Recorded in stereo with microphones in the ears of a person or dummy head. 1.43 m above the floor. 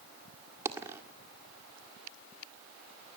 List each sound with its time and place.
0.7 s a dropped coin: 15° right (ahead or behind), 1.9 m